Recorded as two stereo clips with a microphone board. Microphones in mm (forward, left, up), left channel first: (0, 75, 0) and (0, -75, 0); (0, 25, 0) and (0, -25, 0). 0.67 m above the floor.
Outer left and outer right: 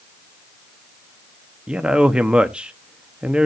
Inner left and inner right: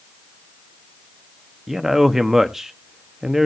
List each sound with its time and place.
1.7 s a man speaking: 5° right (ahead or behind), 0.7 m